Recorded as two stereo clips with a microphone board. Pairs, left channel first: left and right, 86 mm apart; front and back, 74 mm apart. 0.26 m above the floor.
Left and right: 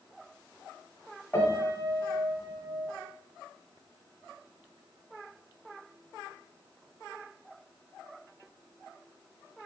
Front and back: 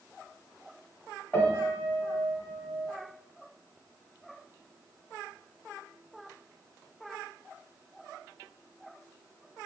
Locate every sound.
1.3 s a piano: 35° left, 1.1 m